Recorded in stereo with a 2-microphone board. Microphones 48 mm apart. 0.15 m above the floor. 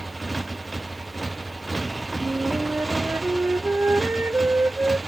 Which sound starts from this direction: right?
A flute, at 2.2 s.